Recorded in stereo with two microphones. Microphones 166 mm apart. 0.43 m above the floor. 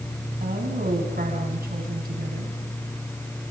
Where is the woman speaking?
70° right (ahead or behind), 4 m.